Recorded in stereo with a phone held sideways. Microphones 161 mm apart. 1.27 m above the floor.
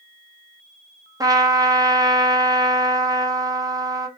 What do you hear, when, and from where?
1.2 s a trumpet: 20° right (ahead or behind), 0.7 m